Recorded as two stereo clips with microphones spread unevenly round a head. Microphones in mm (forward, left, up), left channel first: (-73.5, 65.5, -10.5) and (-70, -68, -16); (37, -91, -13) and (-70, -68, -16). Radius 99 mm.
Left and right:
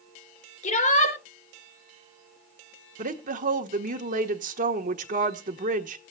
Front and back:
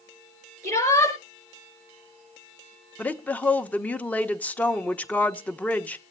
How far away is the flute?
I don't hear a flute.